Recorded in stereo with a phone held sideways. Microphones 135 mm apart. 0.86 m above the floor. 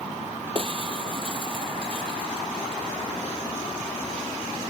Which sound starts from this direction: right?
Breaking glass, at 0.6 s.